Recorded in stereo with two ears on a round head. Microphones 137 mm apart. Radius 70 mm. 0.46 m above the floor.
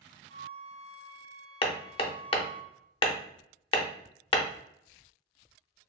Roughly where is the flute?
Left.